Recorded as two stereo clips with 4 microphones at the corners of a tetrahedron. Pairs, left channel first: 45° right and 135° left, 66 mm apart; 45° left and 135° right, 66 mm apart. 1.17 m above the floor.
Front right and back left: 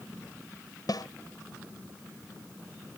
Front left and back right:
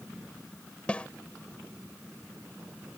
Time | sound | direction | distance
0.9 | a snare drum | 30° right | ?